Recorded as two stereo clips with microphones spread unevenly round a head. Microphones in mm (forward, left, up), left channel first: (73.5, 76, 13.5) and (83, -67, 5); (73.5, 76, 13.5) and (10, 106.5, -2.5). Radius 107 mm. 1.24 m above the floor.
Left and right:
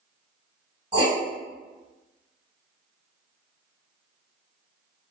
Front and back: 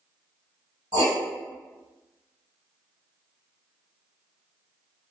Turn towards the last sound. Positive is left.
turn(degrees=-160)